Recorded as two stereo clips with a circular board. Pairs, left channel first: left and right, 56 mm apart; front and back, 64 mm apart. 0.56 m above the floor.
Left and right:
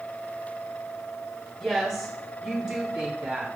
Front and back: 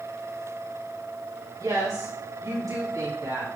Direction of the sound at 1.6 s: Straight behind.